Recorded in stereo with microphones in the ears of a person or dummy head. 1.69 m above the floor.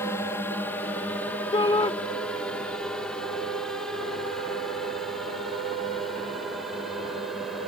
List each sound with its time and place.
0.0 s a drone: 10° left (ahead or behind); by 7.7 s centre (ahead or behind)
1.5 s a shout: 20° left (ahead or behind)